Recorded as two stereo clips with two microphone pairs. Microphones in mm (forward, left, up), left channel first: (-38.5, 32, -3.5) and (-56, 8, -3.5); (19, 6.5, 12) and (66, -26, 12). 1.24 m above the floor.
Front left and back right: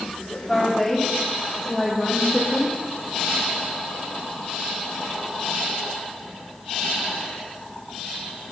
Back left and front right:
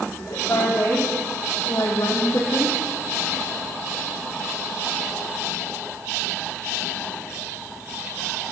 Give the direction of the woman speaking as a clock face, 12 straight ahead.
7 o'clock.